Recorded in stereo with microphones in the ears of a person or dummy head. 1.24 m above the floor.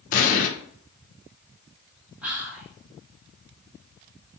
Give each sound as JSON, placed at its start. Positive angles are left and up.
{"t": 0.1, "sound": "an explosion", "side_deg": 45, "distance_m": 0.6}
{"t": 2.2, "sound": "whispering", "side_deg": -10, "distance_m": 1.3}